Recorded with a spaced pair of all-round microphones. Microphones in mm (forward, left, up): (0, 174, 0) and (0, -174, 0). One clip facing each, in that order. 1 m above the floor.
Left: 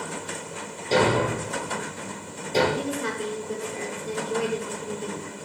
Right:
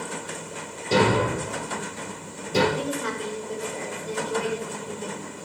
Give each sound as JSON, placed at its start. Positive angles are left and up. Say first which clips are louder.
{"t": 0.9, "sound": "a thud", "louder": "right 1 dB", "side_deg": -20, "distance_m": 4.0}
{"t": 2.7, "sound": "a woman speaking", "louder": "even", "side_deg": 35, "distance_m": 4.0}